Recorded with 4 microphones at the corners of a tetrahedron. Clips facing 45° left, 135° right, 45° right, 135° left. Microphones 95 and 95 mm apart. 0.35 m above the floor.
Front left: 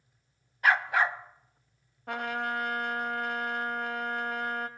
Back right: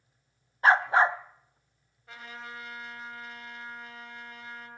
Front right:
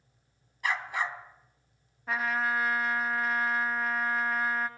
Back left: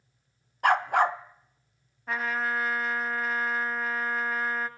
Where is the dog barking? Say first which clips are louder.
Back right 4 dB, back left 9 dB; 165° left, 0.8 m.